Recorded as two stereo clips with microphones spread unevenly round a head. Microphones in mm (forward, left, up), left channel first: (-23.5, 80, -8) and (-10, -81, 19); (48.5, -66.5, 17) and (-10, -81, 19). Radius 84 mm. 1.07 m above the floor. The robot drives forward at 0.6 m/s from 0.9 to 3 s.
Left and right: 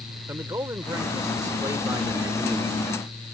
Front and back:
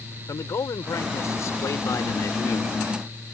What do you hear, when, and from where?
0.3 s a man speaking: 10° right; by 2.9 s 15° right